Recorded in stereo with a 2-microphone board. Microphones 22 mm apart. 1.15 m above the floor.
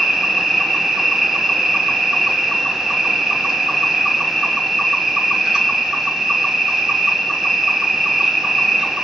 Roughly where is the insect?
Right.